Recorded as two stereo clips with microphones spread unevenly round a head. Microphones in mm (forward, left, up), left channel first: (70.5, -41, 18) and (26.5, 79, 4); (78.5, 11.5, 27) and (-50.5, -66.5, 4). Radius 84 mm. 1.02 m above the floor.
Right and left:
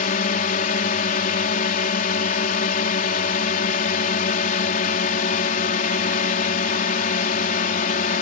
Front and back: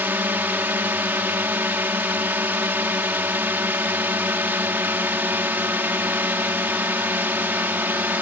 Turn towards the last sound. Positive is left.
turn(degrees=-75)